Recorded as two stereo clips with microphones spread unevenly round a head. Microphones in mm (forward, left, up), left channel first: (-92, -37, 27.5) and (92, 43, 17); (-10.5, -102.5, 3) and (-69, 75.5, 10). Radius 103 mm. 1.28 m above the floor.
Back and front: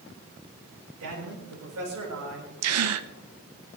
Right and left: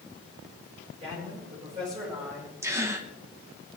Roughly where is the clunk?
No clunk in this recording.